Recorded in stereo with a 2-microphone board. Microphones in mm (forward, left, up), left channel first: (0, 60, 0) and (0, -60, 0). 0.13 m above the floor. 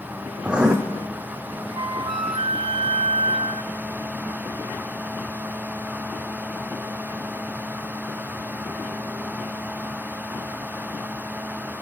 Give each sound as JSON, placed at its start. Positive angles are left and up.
{"t": 0.4, "sound": "writing", "side_deg": -10, "distance_m": 2.5}
{"t": 1.7, "sound": "a flute", "side_deg": -45, "distance_m": 0.6}